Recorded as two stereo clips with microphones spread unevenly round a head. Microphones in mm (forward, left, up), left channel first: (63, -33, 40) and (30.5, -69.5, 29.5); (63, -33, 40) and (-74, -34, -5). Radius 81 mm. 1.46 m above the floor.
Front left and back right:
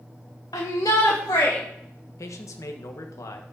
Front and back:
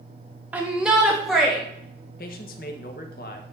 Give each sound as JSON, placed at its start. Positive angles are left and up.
{"t": 0.5, "sound": "a shout", "azimuth_deg": 100, "distance_m": 1.5}
{"t": 2.2, "sound": "a man speaking", "azimuth_deg": 40, "distance_m": 1.5}